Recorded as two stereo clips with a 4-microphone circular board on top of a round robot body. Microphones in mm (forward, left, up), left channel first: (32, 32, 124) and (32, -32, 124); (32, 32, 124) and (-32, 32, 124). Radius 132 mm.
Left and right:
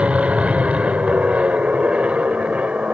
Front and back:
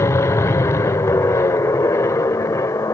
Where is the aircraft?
25° right.